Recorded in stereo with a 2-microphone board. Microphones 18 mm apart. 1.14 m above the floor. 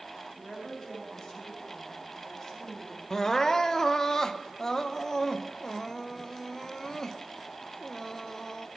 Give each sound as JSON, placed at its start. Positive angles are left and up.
{"t": 0.4, "sound": "a woman speaking", "side_deg": 30, "distance_m": 8.5}
{"t": 3.1, "sound": "crying", "side_deg": 30, "distance_m": 0.8}